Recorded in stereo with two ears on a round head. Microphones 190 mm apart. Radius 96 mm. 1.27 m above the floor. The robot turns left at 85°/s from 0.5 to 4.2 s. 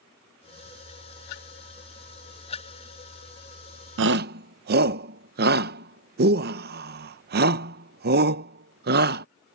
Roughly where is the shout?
Right.